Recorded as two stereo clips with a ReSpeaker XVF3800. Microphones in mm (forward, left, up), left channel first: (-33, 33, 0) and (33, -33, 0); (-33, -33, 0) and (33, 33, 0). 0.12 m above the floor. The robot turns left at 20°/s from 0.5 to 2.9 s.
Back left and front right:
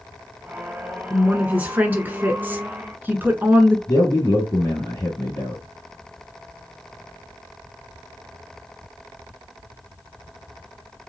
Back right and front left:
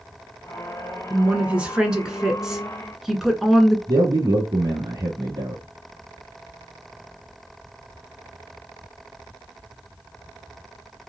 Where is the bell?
No bell in this recording.